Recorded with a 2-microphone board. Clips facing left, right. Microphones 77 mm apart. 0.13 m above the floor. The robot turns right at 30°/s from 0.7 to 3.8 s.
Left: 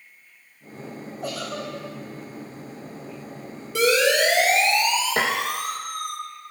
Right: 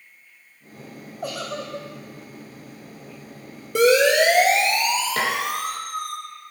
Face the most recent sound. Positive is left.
turn(degrees=25)  # may be behind; listen again after turning